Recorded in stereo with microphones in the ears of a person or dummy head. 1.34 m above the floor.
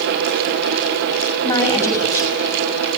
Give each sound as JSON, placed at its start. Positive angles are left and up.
{"t": 1.4, "sound": "a woman speaking", "side_deg": 15, "distance_m": 6.5}